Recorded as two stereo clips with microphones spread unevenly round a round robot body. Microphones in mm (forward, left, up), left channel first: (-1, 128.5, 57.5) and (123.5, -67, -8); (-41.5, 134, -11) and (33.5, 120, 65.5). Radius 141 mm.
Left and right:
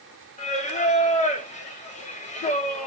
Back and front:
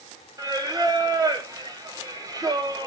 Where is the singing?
55° left, 1.5 m.